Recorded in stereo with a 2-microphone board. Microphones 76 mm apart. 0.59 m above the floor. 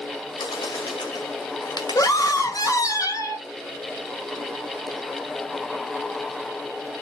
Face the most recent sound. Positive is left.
turn(degrees=50)  # may be behind; listen again after turning